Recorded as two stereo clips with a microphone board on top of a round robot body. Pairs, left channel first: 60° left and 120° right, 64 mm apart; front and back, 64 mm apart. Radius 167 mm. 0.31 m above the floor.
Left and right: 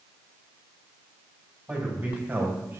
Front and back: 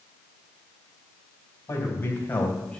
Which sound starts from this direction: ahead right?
A man speaking, at 1.7 s.